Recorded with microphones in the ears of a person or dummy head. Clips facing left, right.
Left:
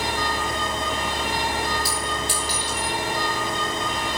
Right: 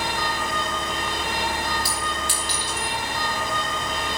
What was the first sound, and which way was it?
A clink, 45° right (ahead or behind).